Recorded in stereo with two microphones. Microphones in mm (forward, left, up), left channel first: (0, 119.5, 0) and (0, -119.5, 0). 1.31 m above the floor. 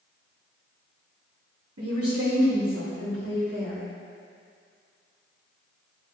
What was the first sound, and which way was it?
A woman speaking, 90° right.